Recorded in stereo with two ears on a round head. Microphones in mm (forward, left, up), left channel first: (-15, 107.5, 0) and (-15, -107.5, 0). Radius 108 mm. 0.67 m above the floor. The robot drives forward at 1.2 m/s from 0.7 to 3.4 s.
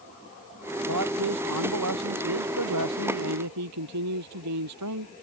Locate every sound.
0.9 s a man speaking: 80° right; by 5.1 s 90° right